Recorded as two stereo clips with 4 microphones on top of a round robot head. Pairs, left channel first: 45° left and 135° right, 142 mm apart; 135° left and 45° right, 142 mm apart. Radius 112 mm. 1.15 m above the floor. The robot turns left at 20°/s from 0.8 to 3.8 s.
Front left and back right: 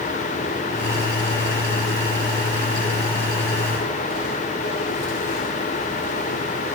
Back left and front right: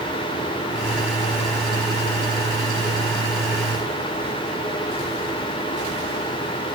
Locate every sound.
Only background noise.